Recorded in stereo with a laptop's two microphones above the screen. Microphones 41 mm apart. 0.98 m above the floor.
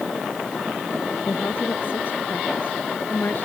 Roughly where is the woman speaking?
Left.